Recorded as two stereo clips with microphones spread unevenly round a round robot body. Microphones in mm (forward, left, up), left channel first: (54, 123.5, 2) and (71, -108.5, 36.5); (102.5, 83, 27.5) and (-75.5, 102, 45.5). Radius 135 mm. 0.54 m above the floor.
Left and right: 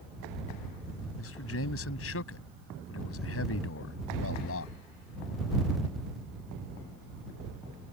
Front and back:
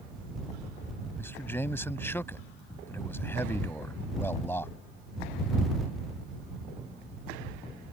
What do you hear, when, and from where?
1.2 s a man speaking: 70° left